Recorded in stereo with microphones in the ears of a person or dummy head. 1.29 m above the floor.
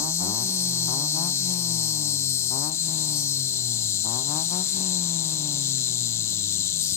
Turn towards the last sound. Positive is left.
turn(degrees=20)  # may be behind; listen again after turning